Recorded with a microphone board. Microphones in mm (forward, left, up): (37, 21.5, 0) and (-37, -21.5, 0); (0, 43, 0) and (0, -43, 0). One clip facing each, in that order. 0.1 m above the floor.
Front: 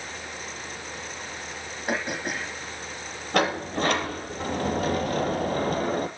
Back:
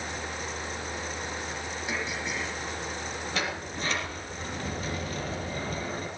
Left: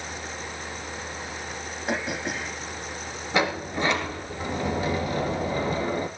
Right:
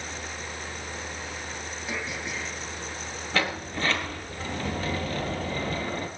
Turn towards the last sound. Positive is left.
turn(degrees=20)